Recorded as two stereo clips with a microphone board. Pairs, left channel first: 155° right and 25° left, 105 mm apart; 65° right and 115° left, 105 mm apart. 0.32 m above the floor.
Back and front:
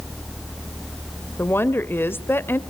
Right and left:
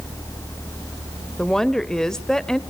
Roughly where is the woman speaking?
Behind right.